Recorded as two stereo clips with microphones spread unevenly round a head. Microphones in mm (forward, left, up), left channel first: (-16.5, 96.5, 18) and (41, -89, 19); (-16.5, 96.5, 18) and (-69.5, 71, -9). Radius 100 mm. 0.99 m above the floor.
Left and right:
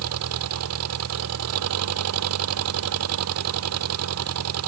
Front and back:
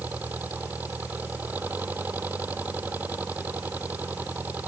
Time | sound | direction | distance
0.0 | an engine running | 70° right | ?